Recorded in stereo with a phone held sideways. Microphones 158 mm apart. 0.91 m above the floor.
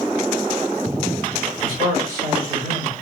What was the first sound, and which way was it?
A man speaking, 25° right (ahead or behind).